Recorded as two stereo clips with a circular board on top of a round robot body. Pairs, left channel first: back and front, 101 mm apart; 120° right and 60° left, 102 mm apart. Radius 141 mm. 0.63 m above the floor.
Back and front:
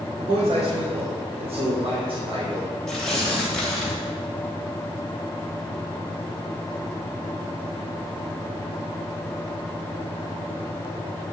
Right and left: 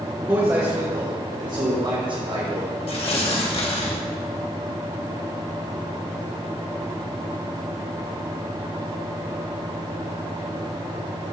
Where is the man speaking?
10° right, 3.5 m; by 2.8 s 40° left, 3 m.